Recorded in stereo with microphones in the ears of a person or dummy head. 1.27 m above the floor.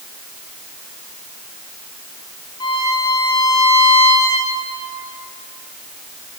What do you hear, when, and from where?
2.6 s a violin: 20° left (ahead or behind), 2.5 m